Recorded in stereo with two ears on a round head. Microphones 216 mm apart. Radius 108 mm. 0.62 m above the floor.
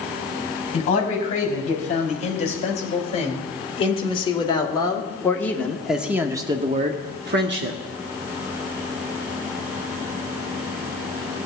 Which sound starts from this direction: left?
A man speaking, at 0.7 s.